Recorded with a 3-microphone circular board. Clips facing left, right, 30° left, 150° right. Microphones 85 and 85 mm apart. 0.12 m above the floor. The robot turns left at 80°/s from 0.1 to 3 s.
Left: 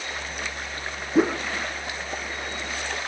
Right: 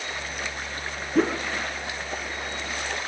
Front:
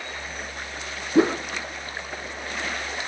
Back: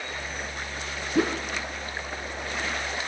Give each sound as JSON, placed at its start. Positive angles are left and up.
{"t": 1.1, "sound": "a whoosh", "azimuth_deg": 20, "distance_m": 0.6}